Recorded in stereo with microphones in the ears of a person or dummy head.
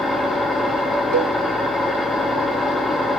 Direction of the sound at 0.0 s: Centre (ahead or behind).